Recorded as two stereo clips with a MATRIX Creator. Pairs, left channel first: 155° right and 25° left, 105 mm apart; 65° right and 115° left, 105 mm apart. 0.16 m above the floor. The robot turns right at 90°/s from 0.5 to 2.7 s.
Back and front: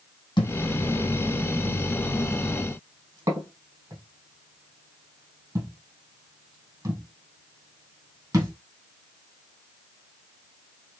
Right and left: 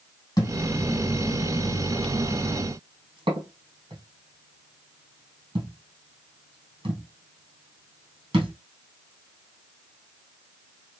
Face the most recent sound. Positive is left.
turn(degrees=75)